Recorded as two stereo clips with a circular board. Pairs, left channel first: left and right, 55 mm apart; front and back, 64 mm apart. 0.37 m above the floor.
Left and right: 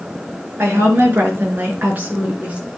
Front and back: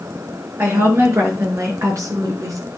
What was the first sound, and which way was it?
A woman speaking, 135° right.